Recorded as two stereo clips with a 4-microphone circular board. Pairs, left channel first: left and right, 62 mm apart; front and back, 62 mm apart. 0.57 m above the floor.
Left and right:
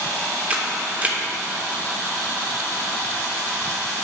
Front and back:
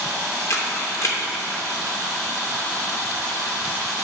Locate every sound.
0.5 s a camera shutter: 30° right, 0.8 m